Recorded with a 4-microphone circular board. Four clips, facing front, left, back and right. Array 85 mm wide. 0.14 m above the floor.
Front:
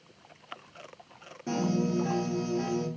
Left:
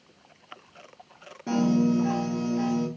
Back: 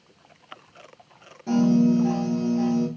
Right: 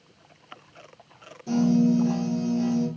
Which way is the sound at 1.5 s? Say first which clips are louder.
Right 2 dB, back 10 dB; 80° left.